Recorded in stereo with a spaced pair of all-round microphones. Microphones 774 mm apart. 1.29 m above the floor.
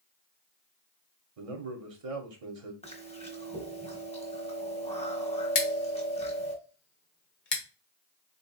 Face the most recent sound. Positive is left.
turn(degrees=85)